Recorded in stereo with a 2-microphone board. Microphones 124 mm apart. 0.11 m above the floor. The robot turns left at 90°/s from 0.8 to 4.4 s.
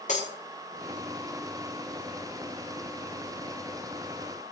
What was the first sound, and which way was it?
Breaking glass, 80° left.